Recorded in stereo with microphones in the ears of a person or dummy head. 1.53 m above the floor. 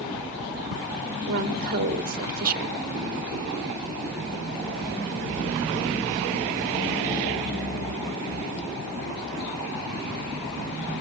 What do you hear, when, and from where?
1.2 s a woman speaking: 50° right (ahead or behind), 1.2 m